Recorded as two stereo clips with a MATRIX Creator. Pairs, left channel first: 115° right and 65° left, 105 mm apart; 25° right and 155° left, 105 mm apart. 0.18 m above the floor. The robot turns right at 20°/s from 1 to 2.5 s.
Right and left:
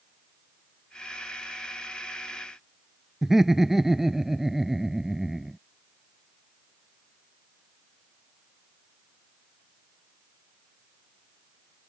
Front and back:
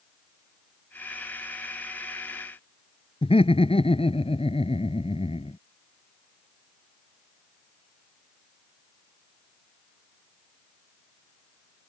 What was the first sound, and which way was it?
Laughter, 20° right.